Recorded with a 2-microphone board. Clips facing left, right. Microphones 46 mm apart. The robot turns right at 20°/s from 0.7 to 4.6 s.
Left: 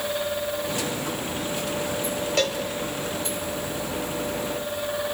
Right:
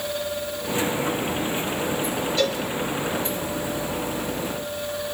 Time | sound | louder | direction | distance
2.4 | a cowbell | even | 60° left (ahead or behind) | 3.5 m